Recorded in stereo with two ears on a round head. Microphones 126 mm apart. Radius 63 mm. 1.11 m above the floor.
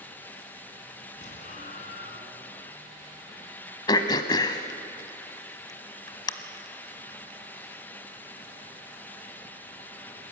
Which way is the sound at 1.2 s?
55° left (ahead or behind).